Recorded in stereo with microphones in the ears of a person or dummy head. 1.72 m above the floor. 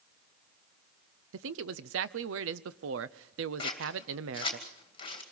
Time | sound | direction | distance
1.3 | a man speaking | 90° right | 0.8 m
3.6 | scissors | 30° left (ahead or behind) | 2.5 m